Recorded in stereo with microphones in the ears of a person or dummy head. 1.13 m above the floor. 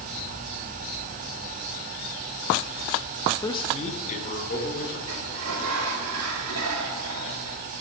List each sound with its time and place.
3.4 s a man speaking: 20° left (ahead or behind), 0.7 m; by 5.0 s 50° left (ahead or behind), 3 m
5.1 s a sliding door: 85° right, 1.7 m